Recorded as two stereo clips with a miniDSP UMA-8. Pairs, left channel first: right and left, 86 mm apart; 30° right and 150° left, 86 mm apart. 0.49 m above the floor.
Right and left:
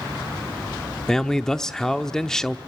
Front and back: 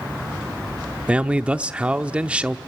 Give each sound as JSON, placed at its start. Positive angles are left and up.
{"t": 1.1, "sound": "a man speaking", "azimuth_deg": -160, "distance_m": 0.7}